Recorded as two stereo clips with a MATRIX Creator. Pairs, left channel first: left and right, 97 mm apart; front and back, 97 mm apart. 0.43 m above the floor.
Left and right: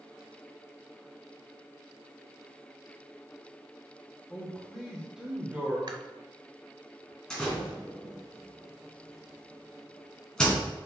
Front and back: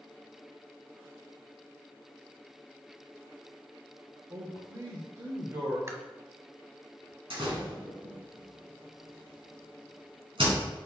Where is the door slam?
170° left, 3.5 m.